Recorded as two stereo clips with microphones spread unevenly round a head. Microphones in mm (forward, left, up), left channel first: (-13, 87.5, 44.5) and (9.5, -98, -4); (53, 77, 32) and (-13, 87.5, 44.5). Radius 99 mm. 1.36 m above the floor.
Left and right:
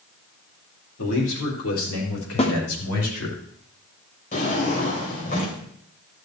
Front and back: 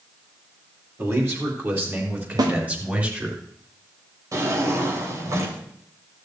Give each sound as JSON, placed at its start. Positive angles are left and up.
{"t": 1.0, "sound": "a man speaking", "azimuth_deg": 120, "distance_m": 4.5}
{"t": 2.4, "sound": "a snare drum", "azimuth_deg": 155, "distance_m": 1.7}
{"t": 4.3, "sound": "a drawer", "azimuth_deg": 140, "distance_m": 3.0}